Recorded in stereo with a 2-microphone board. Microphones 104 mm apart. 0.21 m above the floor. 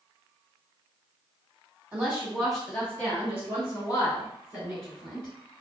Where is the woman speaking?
10° right (ahead or behind), 1.6 m; by 5.3 s 50° left (ahead or behind), 2.5 m.